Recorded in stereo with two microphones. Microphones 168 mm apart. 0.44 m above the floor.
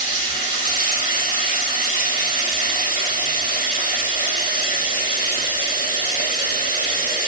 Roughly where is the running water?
Left.